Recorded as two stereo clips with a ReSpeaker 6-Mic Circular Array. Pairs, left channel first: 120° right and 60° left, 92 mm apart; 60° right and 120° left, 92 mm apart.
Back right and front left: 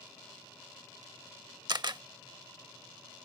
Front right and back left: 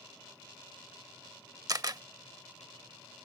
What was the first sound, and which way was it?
A camera shutter, 85° left.